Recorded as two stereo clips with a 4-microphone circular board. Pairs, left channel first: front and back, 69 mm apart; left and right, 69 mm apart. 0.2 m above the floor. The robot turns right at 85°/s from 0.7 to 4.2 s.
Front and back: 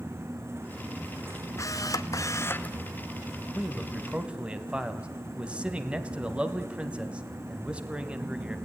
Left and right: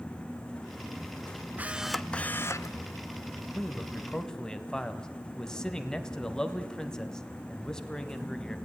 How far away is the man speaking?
About 1.4 m.